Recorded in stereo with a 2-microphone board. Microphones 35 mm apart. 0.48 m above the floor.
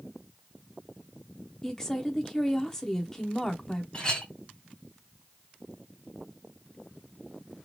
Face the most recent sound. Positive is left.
turn(degrees=25)  # may be behind; listen again after turning